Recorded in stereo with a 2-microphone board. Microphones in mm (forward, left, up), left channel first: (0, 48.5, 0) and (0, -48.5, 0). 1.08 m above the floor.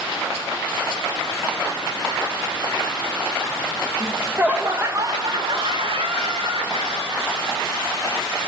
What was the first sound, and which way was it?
Laughter, 5° right (ahead or behind).